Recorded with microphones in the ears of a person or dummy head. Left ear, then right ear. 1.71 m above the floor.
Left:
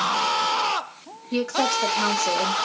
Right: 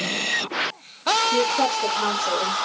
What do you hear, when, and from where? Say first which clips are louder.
1.3 s a woman speaking: right 3 dB; 60° left (ahead or behind), 1.5 m